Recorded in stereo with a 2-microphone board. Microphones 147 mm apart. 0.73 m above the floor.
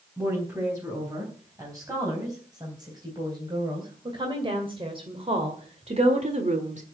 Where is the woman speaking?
20° right (ahead or behind), 5 m; by 6.8 s 55° right (ahead or behind), 1.8 m.